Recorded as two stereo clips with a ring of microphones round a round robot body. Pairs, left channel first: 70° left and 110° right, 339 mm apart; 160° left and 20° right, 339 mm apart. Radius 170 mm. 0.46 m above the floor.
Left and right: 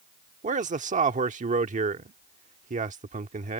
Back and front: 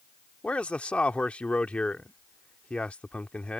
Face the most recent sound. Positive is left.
turn(degrees=-120)